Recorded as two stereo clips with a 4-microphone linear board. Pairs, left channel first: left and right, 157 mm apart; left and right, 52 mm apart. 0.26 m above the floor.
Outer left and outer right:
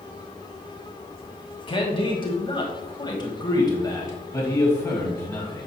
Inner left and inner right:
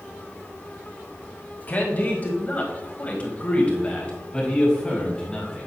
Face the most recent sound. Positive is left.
turn(degrees=10)  # may be behind; listen again after turning